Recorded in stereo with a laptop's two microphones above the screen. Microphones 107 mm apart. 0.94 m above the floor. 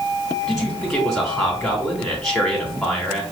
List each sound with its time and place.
0.5 s a man speaking: 5° left (ahead or behind), 3 m